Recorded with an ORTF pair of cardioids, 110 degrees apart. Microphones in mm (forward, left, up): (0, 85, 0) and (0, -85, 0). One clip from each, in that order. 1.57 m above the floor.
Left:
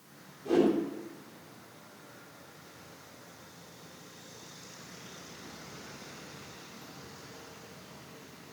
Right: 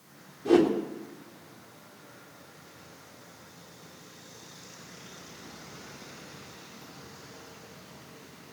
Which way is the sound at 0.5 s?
45° right.